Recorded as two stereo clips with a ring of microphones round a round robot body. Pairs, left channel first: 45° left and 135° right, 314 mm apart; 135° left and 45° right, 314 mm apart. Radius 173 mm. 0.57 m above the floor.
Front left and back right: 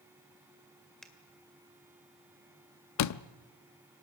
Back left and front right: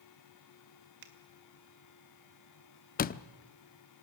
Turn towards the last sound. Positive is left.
turn(degrees=75)